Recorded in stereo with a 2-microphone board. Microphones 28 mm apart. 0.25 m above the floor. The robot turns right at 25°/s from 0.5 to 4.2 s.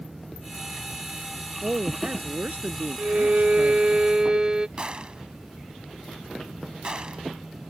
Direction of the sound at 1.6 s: 135° right.